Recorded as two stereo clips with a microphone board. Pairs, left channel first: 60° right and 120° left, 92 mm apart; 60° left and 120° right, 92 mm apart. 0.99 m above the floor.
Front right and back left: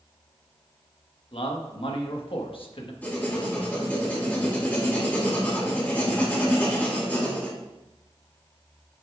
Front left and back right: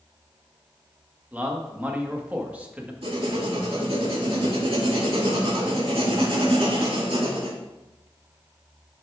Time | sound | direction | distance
1.3 | a man speaking | 45° right | 1.1 m
3.0 | writing | 130° right | 2 m